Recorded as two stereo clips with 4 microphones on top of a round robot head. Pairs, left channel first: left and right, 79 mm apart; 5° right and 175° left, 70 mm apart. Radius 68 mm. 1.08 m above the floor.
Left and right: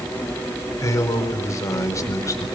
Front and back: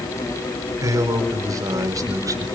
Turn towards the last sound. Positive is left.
turn(degrees=140)